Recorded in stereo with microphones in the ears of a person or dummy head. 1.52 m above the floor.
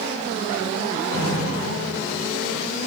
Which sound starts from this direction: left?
Dripping, at 1.1 s.